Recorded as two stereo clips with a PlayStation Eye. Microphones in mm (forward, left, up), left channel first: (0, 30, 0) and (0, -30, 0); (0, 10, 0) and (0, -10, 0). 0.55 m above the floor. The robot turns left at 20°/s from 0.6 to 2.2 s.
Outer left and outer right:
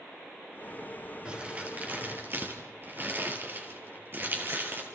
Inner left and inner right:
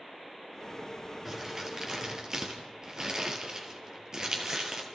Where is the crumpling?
20° right (ahead or behind), 3.5 m; by 4.8 s 40° right (ahead or behind), 3.5 m.